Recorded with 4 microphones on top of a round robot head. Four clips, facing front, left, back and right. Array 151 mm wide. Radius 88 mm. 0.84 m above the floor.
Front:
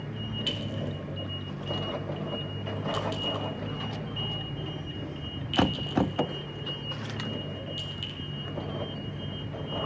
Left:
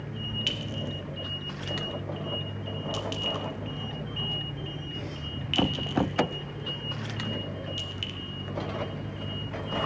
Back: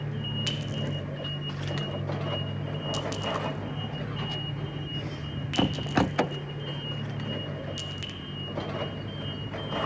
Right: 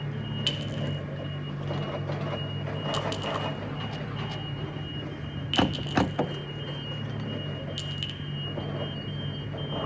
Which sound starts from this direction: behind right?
A clink, at 0.5 s.